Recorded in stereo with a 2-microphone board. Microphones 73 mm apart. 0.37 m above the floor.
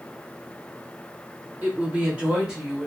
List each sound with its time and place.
1.6 s a woman speaking: 25° right (ahead or behind), 1.3 m; by 2.9 s 5° right (ahead or behind), 1.2 m